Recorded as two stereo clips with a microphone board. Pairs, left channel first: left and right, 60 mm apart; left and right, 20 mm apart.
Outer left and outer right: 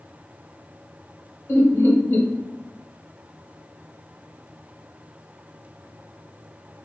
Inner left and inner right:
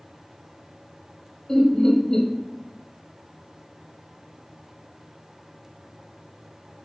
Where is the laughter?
35° left (ahead or behind), 1.1 m.